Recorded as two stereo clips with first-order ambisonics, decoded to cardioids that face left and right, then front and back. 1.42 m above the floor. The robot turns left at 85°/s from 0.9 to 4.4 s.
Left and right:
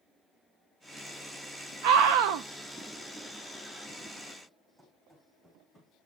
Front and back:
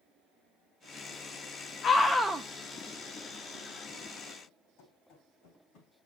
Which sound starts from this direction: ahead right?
A scream, at 1.8 s.